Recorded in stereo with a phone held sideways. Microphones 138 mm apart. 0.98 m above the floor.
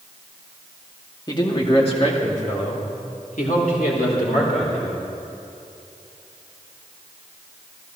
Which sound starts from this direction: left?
A man speaking, at 1.3 s.